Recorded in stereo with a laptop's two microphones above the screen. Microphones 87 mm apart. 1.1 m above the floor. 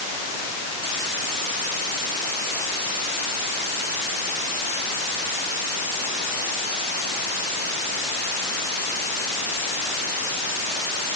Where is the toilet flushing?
I don't hear a toilet flushing.